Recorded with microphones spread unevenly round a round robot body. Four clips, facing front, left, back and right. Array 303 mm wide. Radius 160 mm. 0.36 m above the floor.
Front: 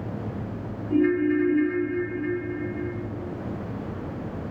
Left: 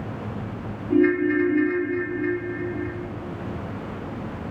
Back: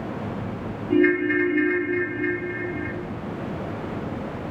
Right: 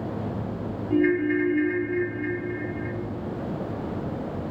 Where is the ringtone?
130° left, 1.4 m.